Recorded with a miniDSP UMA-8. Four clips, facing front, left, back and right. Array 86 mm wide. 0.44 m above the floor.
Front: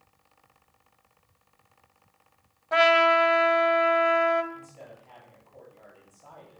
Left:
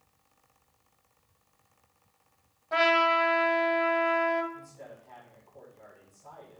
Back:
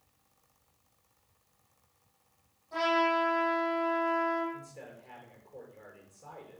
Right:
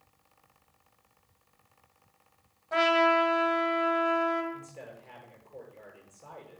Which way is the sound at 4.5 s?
130° right.